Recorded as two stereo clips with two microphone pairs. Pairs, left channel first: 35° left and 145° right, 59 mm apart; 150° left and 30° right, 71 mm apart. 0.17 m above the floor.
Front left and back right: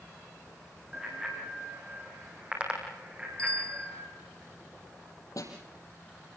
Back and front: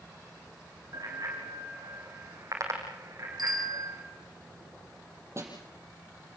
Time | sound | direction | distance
0.9 | a bicycle bell | 70° right | 4.5 m
3.4 | a bicycle bell | 35° right | 2.5 m
5.4 | a snare drum | 20° left | 6 m